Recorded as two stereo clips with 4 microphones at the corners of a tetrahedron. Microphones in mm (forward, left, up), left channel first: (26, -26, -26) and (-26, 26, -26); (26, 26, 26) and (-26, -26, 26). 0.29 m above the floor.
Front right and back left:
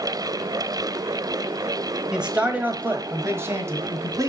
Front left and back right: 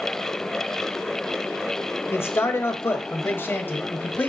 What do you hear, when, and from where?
2.1 s a man speaking: 65° left, 1.3 m; by 4.3 s 105° left, 1.8 m